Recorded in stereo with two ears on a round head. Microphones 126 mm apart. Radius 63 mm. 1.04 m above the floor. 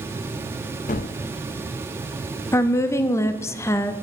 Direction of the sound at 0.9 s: 55° left (ahead or behind).